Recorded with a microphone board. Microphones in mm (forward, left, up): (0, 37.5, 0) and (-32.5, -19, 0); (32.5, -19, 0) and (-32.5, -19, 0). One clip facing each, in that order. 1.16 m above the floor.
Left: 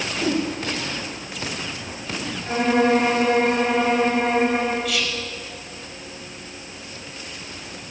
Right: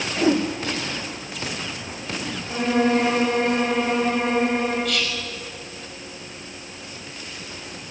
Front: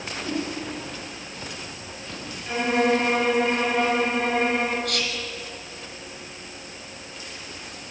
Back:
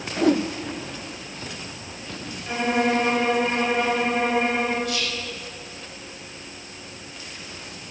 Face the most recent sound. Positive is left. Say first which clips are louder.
# even, even
turn(degrees=-25)